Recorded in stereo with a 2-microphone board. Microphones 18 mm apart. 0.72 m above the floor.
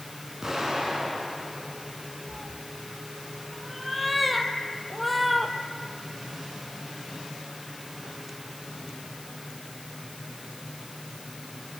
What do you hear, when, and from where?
0.4 s an explosion: 30° right (ahead or behind), 7.5 m
2.3 s a cat meowing: centre (ahead or behind), 2 m